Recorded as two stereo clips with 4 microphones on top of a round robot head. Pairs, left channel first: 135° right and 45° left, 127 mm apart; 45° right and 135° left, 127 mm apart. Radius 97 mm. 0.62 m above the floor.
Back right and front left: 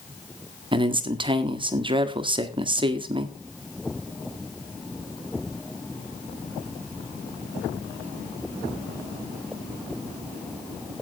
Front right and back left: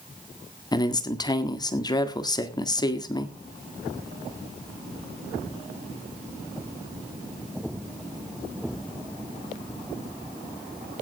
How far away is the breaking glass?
I don't hear breaking glass.